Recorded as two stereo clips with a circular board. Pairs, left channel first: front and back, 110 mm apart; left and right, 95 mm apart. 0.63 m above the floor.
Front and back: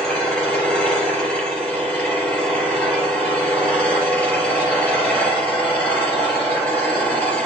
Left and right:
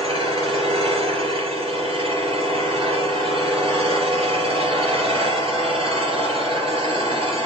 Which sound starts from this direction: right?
An engine running, at 0.0 s.